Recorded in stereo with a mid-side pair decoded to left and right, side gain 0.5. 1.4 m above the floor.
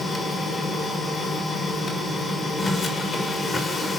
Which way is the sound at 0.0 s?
35° left.